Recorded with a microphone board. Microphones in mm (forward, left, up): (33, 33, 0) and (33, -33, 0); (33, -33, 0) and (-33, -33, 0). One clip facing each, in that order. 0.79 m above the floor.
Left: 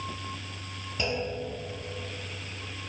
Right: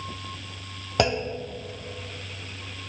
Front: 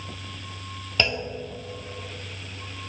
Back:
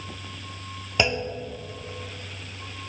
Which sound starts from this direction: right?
A clunk, at 1.0 s.